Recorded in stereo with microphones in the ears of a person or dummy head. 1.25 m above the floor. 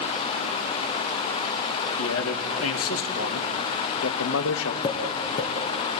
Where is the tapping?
25° left (ahead or behind), 2.5 m.